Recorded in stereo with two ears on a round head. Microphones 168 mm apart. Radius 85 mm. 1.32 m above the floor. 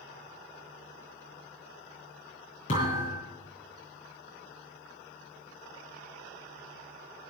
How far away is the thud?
About 9 m.